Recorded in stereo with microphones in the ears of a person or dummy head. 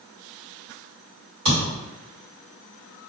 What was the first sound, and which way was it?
A thud, 45° right (ahead or behind).